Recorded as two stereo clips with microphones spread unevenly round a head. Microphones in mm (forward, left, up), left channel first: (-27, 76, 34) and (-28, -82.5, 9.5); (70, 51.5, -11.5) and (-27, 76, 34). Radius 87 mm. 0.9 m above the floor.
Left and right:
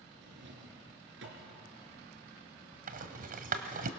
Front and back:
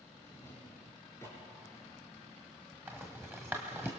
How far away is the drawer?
About 3.5 m.